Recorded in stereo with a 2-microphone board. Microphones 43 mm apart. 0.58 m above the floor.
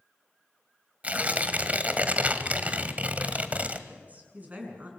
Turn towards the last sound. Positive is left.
turn(degrees=-35)  # may be behind; listen again after turning